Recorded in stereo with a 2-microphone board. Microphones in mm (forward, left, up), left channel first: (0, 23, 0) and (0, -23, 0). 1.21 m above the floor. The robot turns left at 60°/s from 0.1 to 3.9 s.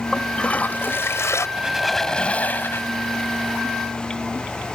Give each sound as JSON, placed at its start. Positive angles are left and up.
{"t": 0.1, "sound": "a toilet flushing", "azimuth_deg": 175}
{"t": 1.6, "sound": "a squeak", "azimuth_deg": -160}